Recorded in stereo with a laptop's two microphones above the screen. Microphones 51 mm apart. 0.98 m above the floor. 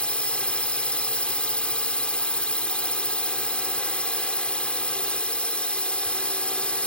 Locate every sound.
0.0 s a drone: 20° left (ahead or behind)